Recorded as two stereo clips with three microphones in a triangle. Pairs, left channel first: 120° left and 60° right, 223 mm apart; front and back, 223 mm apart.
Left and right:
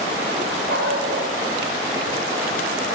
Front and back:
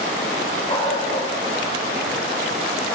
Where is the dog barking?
70° right, 8 m; by 3.0 s 80° right, 8 m.